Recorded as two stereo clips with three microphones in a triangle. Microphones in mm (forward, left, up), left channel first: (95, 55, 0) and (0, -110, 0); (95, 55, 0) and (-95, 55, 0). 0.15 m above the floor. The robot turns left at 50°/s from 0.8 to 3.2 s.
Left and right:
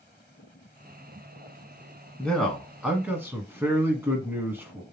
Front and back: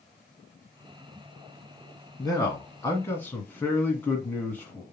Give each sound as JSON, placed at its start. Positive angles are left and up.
{"t": 2.2, "sound": "a man speaking", "azimuth_deg": -10, "distance_m": 1.4}